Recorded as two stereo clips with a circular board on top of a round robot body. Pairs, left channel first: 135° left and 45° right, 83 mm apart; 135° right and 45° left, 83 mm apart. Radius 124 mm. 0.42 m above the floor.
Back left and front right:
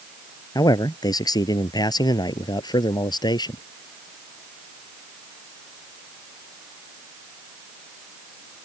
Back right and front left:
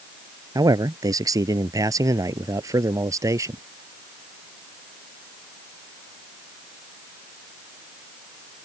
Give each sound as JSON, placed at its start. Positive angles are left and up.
{"t": 0.6, "sound": "a man speaking", "azimuth_deg": 90}